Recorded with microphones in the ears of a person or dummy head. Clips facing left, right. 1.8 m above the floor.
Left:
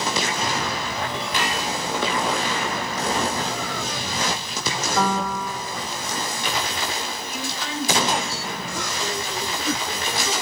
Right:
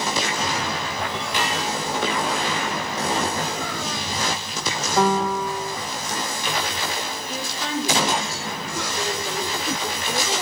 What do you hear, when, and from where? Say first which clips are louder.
5.0 s a piano: right 5 dB; 20° right (ahead or behind), 0.8 m
7.3 s a woman speaking: right 5 dB; 30° right (ahead or behind), 8 m